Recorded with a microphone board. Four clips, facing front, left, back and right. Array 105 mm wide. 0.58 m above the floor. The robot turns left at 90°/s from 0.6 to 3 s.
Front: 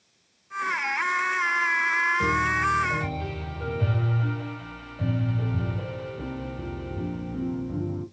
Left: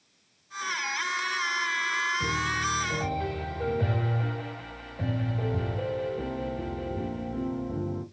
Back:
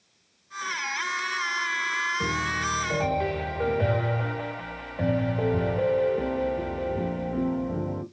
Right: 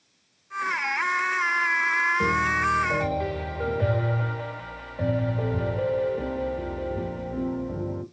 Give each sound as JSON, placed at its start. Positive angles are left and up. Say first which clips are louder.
{"t": 2.2, "sound": "a piano", "louder": "right 6 dB, front 4 dB", "azimuth_deg": -80, "distance_m": 2.5}